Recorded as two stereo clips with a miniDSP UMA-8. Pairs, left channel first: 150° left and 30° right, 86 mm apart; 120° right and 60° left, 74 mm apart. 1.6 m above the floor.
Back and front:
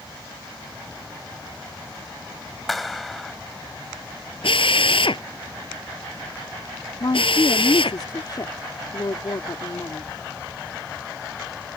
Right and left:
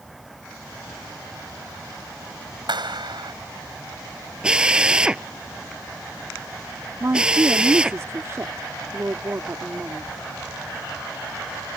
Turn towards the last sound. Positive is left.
turn(degrees=110)